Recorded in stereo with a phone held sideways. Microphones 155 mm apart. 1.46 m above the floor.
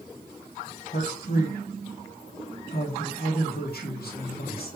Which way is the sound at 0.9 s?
80° left.